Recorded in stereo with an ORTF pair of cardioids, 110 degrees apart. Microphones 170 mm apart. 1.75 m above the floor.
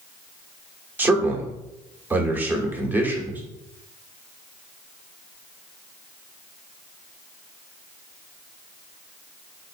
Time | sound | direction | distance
1.0 | a man speaking | 10° right | 1.3 m